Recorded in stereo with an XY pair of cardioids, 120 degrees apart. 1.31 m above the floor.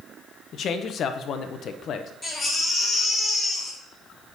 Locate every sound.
0.5 s a man speaking: 55° left, 0.9 m
2.2 s a baby crying: 25° left, 2.5 m